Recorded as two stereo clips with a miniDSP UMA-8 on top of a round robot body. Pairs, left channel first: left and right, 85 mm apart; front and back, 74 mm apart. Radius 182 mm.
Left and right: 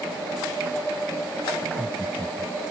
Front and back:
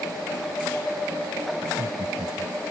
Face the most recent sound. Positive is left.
turn(degrees=170)